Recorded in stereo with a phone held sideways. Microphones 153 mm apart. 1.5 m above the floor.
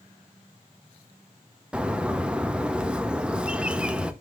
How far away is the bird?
About 0.7 m.